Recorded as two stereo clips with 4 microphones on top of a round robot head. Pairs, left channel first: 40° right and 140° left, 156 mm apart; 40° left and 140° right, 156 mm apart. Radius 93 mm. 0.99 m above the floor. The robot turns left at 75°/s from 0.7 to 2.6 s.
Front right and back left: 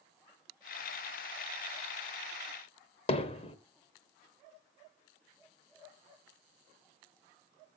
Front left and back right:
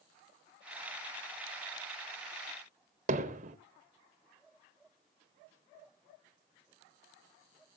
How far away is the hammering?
About 1.8 m.